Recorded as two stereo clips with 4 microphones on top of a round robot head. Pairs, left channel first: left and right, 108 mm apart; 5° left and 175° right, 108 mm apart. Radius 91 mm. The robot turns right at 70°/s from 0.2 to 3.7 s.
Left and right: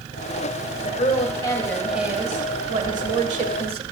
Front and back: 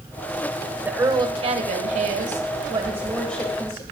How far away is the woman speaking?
About 1.5 m.